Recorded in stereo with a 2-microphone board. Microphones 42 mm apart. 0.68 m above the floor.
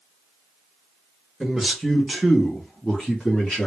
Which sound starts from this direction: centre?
A man speaking, at 1.4 s.